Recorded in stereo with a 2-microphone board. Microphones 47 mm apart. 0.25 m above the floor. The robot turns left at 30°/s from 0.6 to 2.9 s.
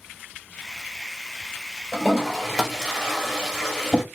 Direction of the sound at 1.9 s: 5° left (ahead or behind).